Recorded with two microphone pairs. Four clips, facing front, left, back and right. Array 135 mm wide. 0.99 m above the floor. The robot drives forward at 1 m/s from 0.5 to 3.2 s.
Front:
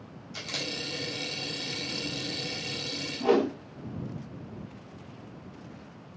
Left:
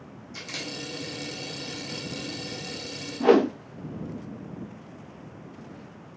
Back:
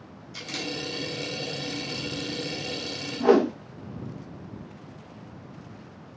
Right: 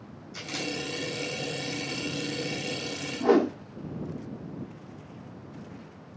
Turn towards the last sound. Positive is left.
turn(degrees=120)